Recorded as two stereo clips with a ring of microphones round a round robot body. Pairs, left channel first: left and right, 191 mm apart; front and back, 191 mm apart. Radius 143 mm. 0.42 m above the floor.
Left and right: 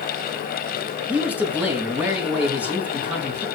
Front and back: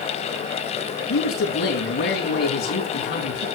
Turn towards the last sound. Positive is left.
turn(degrees=-10)